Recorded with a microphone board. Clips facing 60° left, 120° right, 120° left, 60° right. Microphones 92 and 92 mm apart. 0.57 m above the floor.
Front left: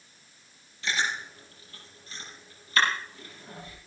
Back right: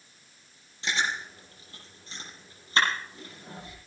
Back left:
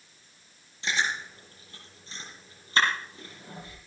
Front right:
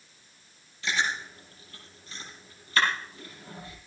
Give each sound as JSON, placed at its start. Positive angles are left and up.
{"t": 0.8, "sound": "chewing", "azimuth_deg": 180, "distance_m": 8.0}